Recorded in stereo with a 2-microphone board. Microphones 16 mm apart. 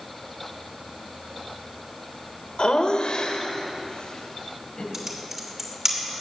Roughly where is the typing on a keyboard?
Right.